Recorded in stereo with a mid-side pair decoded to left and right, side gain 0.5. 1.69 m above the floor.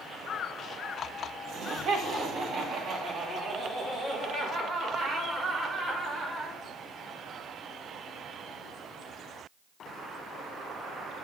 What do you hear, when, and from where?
1.5 s laughter: 60° right, 2.5 m; by 6.6 s 40° right, 6 m